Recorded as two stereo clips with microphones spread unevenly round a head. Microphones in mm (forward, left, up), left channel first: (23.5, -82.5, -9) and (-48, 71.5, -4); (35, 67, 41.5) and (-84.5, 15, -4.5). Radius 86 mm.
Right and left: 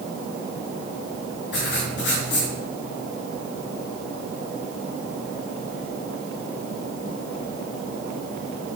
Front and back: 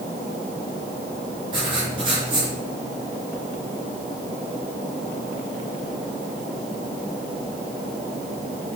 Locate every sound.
1.5 s writing: 85° right, 4.5 m